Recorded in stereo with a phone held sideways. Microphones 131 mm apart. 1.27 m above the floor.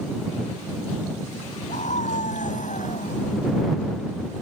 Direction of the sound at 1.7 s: 70° left (ahead or behind).